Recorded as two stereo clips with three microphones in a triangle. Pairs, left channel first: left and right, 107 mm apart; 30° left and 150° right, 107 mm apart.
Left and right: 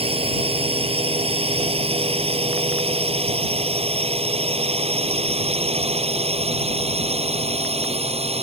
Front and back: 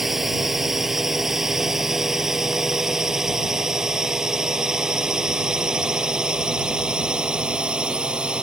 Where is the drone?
65° right; by 8.4 s 70° right.